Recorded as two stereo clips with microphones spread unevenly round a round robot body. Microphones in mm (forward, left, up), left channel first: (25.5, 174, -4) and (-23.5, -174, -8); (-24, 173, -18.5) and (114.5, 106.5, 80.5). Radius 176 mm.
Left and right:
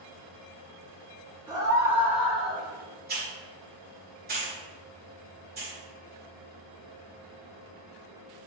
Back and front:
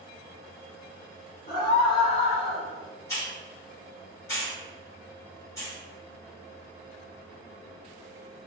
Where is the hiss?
160° right, 1.7 m.